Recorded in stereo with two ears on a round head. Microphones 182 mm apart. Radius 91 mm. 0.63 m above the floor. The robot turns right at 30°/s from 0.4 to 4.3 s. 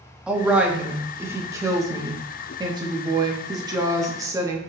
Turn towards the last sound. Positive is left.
turn(degrees=-15)  # may be behind; listen again after turning